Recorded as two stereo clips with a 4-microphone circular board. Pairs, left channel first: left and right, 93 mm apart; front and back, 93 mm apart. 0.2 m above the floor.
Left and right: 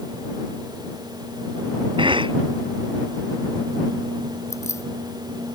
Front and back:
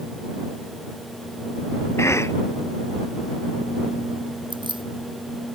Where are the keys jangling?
150° left.